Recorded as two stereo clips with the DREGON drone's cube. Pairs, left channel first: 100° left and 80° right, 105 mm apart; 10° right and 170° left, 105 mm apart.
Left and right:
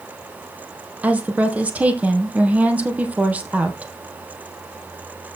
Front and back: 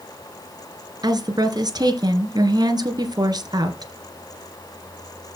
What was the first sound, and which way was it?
A woman speaking, 155° right.